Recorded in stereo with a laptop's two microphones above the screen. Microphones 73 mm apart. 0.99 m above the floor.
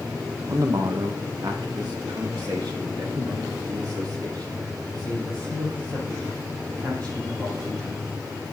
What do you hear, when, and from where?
0.5 s a man speaking: 50° right (ahead or behind), 0.8 m; by 8.2 s 70° right (ahead or behind), 6.5 m